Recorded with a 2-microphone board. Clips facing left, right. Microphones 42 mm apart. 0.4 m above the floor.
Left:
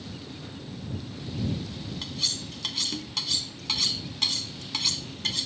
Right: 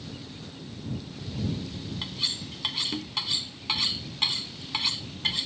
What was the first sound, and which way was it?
Cutlery clinking, 20° right (ahead or behind).